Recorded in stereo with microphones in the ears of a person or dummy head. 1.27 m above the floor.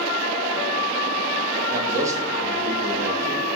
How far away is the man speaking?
About 2 m.